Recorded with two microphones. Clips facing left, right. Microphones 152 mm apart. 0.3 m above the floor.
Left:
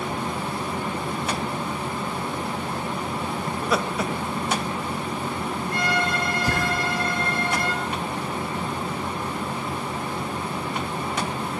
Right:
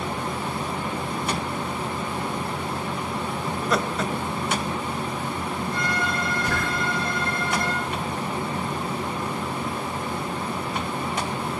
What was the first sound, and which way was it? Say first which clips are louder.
Laughter: even; 5° right (ahead or behind).